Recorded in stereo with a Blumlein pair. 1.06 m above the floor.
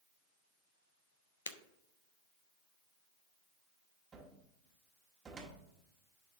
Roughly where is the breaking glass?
Ahead left.